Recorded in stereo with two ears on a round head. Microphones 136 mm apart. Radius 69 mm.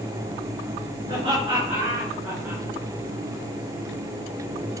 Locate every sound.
1.1 s laughter: 30° right (ahead or behind), 7 m; by 2.6 s 10° right (ahead or behind), 6.5 m